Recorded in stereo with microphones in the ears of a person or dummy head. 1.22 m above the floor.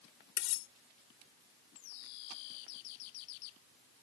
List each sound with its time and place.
0.4 s cutlery clinking: 60° left (ahead or behind)